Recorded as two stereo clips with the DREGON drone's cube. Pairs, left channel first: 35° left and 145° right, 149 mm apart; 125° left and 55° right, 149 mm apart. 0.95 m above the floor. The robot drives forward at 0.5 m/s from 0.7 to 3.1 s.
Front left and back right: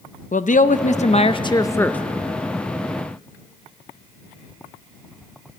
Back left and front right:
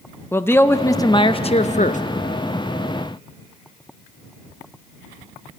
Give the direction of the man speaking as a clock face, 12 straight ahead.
10 o'clock.